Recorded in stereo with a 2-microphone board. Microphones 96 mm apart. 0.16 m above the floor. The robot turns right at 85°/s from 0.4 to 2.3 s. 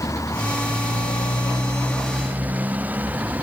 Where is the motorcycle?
35° left (ahead or behind); by 3.4 s 15° right (ahead or behind).